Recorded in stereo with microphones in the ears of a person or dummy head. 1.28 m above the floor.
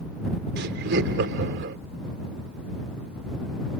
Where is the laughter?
70° right (ahead or behind).